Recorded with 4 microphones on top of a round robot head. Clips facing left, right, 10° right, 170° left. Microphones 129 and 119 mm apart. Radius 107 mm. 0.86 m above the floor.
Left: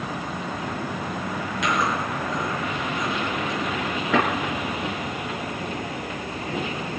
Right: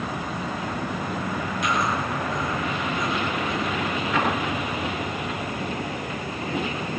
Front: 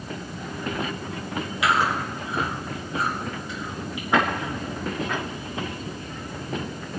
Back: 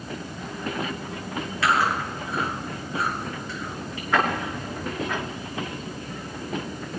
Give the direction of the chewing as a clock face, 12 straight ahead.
10 o'clock.